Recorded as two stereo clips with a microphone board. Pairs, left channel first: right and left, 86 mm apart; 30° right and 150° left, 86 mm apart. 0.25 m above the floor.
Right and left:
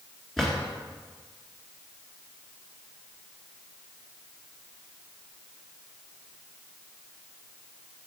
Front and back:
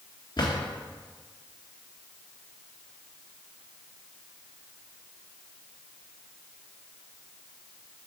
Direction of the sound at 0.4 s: Straight ahead.